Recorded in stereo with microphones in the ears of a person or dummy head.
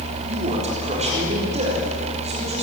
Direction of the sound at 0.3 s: 35° right (ahead or behind).